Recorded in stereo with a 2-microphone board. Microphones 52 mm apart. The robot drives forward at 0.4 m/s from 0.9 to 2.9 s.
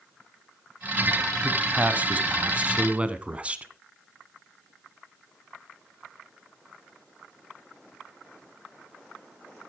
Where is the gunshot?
No gunshot in this recording.